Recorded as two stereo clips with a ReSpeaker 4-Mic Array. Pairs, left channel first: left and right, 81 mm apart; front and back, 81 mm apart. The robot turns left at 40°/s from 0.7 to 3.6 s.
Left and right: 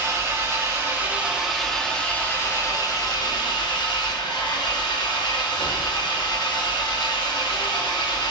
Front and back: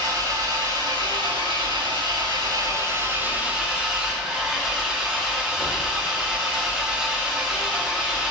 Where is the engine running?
145° right, 2 m; by 8.3 s 100° left, 2 m.